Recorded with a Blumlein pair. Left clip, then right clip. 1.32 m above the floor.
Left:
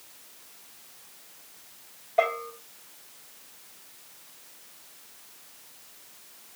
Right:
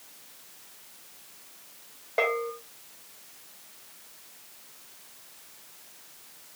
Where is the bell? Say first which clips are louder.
Left 1 dB; 70° right, 3 m.